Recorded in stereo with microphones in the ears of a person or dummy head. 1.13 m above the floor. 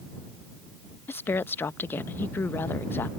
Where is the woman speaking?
10° left (ahead or behind).